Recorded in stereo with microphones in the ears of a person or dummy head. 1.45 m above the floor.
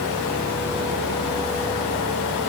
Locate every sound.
Only background noise.